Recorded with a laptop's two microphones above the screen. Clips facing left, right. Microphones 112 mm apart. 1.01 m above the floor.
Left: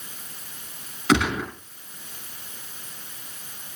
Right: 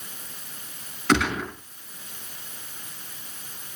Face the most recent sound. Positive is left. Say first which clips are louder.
# left 1 dB
turn(degrees=10)  # may be behind; listen again after turning